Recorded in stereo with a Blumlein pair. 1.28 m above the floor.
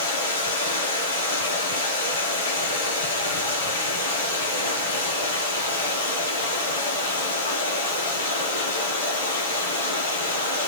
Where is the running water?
65° left, 4.5 m.